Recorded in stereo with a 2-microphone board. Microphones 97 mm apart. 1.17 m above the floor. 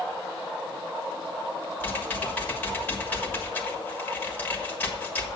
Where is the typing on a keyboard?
20° left (ahead or behind), 1.4 m.